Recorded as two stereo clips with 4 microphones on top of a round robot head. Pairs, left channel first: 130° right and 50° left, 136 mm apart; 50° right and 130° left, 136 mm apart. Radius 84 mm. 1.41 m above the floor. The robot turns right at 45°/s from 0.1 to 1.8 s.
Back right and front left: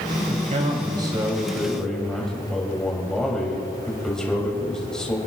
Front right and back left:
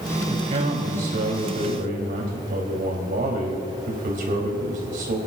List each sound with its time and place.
0.3 s a man speaking: 75° left, 4 m; by 5.2 s 145° left, 4 m